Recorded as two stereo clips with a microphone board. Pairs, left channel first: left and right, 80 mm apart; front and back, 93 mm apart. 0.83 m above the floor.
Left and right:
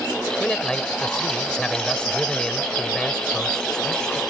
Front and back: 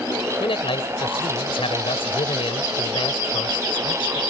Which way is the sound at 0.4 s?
10° left.